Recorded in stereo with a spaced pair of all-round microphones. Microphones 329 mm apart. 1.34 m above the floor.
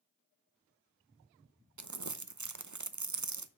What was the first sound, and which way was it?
Crumpling, 60° right (ahead or behind).